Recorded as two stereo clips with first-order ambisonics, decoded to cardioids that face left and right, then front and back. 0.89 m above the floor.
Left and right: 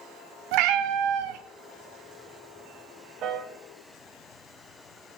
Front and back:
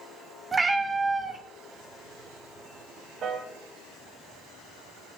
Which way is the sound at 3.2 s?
130° right.